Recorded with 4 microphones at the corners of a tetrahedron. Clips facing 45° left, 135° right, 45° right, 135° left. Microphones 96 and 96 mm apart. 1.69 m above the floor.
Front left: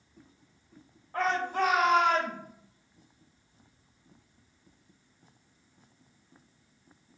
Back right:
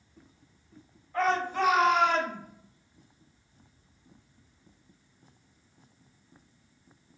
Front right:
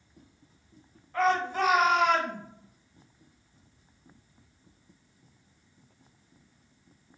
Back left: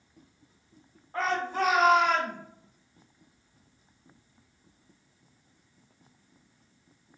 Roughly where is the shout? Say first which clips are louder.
Back right 1 dB, front right 3 dB; left.